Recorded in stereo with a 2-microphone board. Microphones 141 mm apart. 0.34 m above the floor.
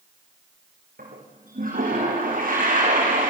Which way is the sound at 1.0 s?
80° right.